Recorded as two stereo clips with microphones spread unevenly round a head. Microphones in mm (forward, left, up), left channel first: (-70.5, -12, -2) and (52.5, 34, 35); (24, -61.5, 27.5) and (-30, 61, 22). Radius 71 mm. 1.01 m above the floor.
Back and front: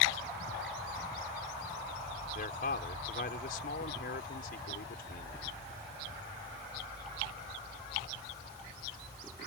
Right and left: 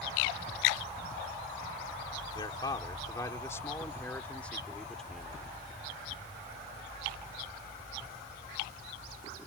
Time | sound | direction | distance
2.4 | a man speaking | 125° right | ?